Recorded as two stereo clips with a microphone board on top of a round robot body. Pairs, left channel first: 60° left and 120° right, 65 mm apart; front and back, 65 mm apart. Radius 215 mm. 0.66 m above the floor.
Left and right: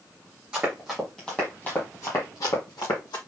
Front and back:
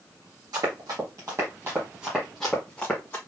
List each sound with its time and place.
0.5 s running footsteps: 165° left, 1.6 m; by 3.2 s 70° left, 1.7 m